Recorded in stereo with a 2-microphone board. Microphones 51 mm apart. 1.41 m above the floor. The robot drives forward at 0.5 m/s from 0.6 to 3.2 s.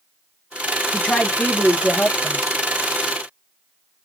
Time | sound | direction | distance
0.9 | a woman speaking | 25° left (ahead or behind) | 1.9 m